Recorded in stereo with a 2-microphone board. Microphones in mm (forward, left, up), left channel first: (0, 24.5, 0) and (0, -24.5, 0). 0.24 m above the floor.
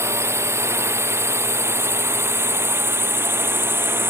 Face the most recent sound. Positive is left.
turn(degrees=-55)  # may be behind; listen again after turning